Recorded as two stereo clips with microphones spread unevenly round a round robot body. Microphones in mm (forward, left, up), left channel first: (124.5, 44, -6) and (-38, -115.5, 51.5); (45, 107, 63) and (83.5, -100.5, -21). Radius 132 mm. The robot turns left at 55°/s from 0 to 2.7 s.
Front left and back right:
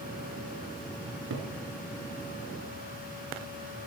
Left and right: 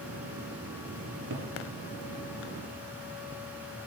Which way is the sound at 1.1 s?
95° right.